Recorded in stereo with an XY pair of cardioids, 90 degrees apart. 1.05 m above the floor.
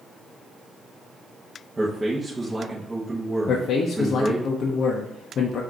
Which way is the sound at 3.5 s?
70° left.